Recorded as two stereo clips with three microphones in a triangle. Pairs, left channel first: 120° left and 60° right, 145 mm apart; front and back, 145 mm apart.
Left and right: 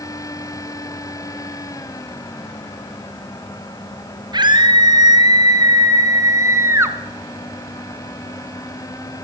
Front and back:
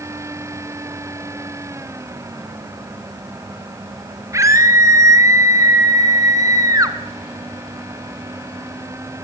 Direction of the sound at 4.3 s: 115° right.